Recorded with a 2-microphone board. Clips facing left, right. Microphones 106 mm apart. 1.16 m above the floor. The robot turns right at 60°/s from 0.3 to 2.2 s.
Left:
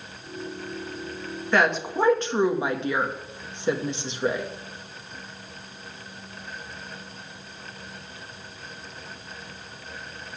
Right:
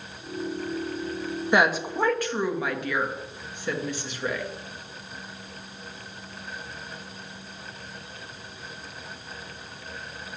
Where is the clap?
I don't hear a clap.